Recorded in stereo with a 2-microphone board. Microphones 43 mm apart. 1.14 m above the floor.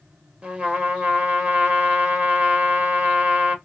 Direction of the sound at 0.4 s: 25° right (ahead or behind).